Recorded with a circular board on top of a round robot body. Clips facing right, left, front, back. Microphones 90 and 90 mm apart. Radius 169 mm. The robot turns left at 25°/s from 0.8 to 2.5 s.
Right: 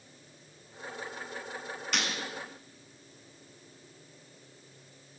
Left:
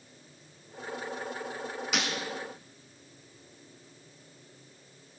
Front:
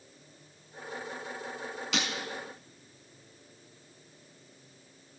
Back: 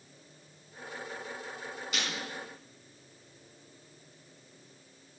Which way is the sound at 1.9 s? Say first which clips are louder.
Left 1 dB, front 4 dB; 5° left.